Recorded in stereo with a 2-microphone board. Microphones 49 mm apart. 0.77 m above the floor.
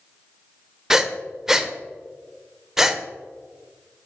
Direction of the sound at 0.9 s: 10° right (ahead or behind).